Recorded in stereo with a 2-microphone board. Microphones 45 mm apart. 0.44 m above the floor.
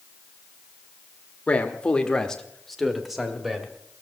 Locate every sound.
1.5 s a man speaking: 30° left (ahead or behind), 1.4 m; by 3.7 s 10° right (ahead or behind), 2.5 m